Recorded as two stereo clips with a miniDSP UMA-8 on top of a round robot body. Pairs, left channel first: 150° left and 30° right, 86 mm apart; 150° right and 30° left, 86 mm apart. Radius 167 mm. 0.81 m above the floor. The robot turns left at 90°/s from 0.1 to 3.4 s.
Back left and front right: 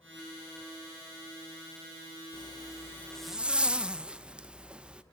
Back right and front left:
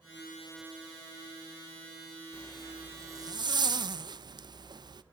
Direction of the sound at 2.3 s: 145° left.